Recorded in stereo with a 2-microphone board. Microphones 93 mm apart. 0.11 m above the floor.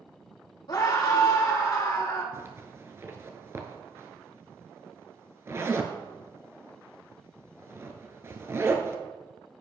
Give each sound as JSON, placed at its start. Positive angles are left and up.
{"t": 0.7, "sound": "a scream", "side_deg": 55, "distance_m": 4.0}
{"t": 2.3, "sound": "a zipper", "side_deg": -30, "distance_m": 0.9}